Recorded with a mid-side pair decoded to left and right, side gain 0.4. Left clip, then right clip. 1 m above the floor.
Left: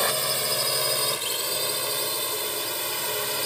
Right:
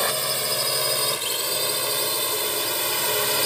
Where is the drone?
5° right; by 3.5 s 45° right.